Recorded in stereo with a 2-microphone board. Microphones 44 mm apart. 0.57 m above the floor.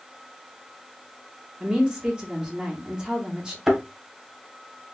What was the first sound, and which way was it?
A woman speaking, 20° right (ahead or behind).